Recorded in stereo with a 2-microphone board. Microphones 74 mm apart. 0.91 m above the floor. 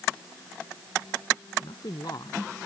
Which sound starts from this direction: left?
A man speaking, at 1.6 s.